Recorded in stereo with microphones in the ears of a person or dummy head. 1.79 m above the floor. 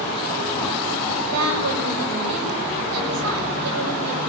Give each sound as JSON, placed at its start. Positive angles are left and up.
{"t": 1.3, "sound": "a woman speaking", "side_deg": -85, "distance_m": 8.0}